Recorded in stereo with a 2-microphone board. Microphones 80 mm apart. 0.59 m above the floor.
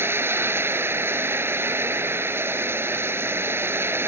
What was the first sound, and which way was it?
Running water, 30° right (ahead or behind).